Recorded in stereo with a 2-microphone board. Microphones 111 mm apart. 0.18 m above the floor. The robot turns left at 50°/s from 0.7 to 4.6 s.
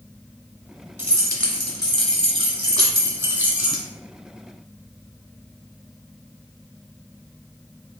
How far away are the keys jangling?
About 1.4 m.